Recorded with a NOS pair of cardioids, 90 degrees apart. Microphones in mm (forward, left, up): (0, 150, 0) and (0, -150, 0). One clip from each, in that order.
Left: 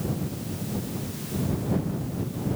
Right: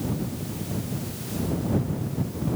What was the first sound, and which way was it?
Only background noise.